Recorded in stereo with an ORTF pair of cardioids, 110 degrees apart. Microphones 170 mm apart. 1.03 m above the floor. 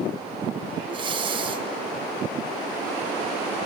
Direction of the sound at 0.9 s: 30° right.